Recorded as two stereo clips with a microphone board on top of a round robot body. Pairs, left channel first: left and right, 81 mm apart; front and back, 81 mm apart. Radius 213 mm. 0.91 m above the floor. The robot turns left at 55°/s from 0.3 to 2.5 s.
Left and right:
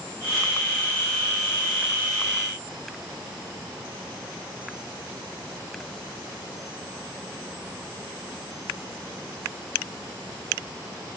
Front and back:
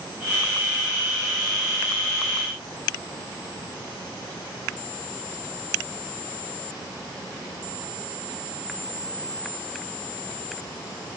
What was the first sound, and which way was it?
Only background noise.